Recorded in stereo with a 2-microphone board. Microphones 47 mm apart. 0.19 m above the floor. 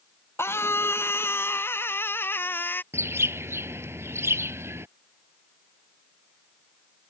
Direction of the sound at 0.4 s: 60° left (ahead or behind).